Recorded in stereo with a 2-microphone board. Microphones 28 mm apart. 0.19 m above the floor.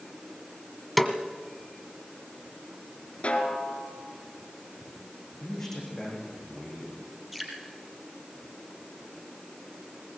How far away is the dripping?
About 4 m.